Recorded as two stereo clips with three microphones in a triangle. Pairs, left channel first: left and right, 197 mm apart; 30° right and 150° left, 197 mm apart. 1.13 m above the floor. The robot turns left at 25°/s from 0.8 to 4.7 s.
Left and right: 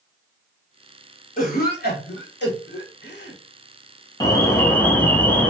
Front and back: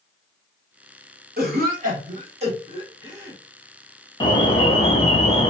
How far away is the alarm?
About 0.7 m.